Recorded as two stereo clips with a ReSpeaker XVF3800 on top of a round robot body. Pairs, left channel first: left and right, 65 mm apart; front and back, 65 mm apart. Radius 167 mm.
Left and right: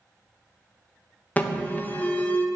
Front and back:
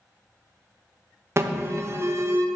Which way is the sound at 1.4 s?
150° left.